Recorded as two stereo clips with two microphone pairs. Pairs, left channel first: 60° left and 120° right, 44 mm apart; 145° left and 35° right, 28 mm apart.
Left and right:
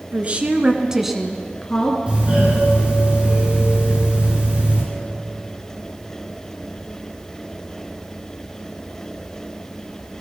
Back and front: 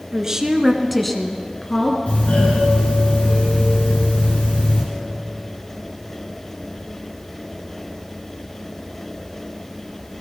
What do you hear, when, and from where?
0.1 s a woman speaking: 85° right, 1.6 m; by 2.0 s 110° left, 1.6 m
2.1 s a doorbell: 175° left, 7 m